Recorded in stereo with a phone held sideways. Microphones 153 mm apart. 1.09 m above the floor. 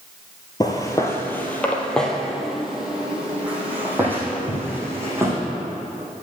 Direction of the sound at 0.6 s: 25° left (ahead or behind).